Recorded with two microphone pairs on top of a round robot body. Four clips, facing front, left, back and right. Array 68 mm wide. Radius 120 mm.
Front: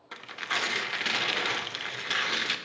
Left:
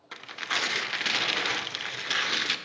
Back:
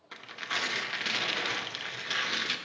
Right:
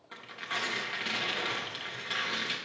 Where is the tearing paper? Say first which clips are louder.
Left 5 dB, front 3 dB; 40° left, 0.6 m.